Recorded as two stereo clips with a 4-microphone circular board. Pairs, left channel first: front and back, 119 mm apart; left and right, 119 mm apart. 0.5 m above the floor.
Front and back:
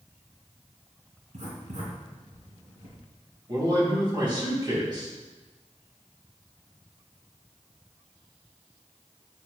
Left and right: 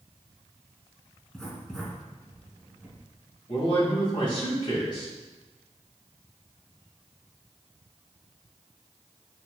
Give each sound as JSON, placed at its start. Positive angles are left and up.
{"t": 1.3, "sound": "writing", "azimuth_deg": 175, "distance_m": 3.0}
{"t": 3.5, "sound": "a man speaking", "azimuth_deg": 130, "distance_m": 3.5}